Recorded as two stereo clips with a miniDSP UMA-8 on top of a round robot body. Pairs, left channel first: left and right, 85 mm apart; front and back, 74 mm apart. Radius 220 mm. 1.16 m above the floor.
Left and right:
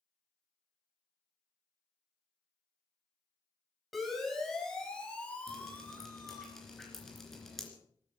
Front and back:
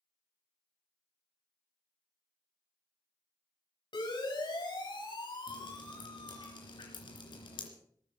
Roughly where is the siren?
Ahead.